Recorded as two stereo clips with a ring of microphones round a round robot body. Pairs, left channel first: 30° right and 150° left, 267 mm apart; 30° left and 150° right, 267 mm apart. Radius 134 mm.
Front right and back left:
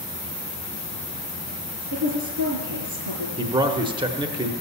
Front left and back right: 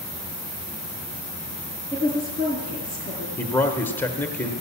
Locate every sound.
1.9 s a woman speaking: 140° left, 5.5 m
3.4 s a man speaking: 100° left, 0.9 m